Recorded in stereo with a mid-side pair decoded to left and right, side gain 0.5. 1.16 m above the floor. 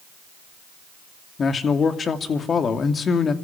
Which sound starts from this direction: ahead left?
A man speaking, at 1.4 s.